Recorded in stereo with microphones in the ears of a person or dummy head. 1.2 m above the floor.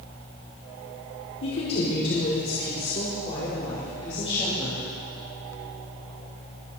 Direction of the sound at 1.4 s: 70° left (ahead or behind).